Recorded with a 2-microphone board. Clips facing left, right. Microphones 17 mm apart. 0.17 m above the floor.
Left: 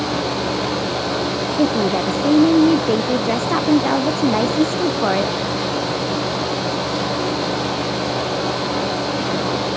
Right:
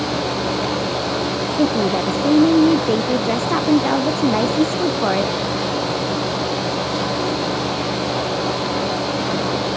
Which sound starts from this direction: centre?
A woman speaking, at 1.6 s.